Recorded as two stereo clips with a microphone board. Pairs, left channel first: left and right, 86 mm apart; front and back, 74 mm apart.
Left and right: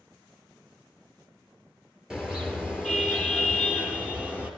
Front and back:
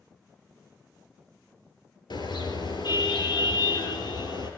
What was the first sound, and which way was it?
A car horn, 10° right.